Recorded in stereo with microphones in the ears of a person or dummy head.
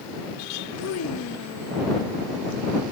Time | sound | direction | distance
0.8 | a child speaking | 75° left (ahead or behind) | ?